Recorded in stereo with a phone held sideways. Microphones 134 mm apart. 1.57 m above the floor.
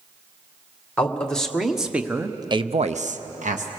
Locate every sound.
1.0 s a man speaking: 10° left (ahead or behind), 1.8 m; by 3.7 s 75° right (ahead or behind), 1.1 m